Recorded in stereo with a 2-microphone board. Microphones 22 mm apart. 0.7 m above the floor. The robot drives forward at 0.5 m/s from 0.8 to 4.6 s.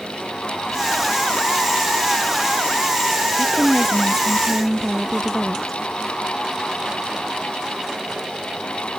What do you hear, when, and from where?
3.4 s a woman speaking: 5° left (ahead or behind)